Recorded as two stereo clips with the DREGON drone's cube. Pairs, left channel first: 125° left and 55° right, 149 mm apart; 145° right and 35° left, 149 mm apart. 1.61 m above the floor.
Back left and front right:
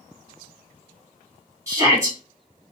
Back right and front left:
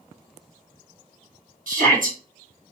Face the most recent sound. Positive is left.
turn(degrees=15)